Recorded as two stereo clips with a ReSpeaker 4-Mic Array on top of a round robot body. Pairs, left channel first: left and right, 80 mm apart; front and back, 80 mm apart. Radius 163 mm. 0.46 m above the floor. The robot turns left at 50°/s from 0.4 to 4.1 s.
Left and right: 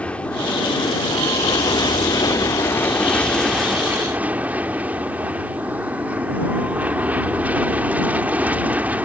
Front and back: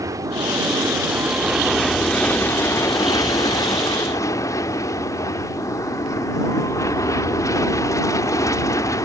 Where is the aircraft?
160° left; by 9.1 s 25° right.